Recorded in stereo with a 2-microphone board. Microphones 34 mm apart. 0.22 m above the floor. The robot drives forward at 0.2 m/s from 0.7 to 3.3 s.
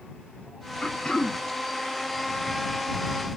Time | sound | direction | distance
0.8 | throat clearing | 20° left (ahead or behind) | 1.1 m